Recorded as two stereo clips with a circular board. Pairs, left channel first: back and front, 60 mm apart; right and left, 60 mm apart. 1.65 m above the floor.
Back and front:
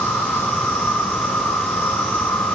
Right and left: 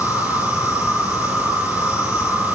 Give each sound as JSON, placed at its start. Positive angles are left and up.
{"t": 0.0, "sound": "an insect", "azimuth_deg": -120, "distance_m": 6.5}